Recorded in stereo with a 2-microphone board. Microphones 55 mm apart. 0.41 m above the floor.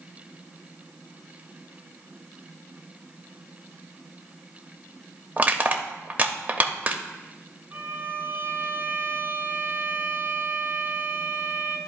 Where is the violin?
35° right (ahead or behind), 1.2 m.